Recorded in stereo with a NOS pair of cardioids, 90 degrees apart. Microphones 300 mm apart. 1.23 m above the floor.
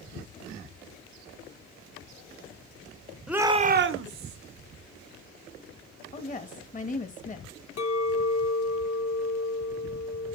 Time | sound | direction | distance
3.3 | a shout | straight ahead | 0.9 m
6.1 | a woman speaking | 25° left | 1.4 m
7.8 | a clink | 60° left | 2.5 m